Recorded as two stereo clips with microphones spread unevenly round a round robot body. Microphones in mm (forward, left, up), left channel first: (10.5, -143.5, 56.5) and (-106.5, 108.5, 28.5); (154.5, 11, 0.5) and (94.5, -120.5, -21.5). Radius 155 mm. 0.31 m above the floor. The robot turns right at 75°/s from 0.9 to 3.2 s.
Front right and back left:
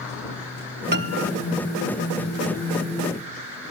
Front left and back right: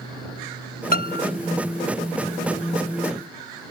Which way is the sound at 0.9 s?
55° left.